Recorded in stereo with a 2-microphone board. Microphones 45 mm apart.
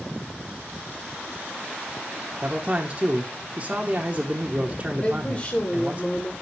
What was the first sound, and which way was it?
A man speaking, 30° right (ahead or behind).